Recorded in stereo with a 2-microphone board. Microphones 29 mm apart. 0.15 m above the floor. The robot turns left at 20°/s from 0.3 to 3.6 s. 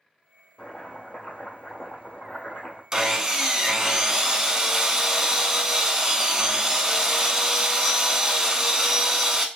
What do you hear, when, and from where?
0.6 s chopping: 140° left, 1.4 m; by 2.8 s 95° left, 1.4 m
2.9 s sawing: 20° right (ahead or behind), 0.5 m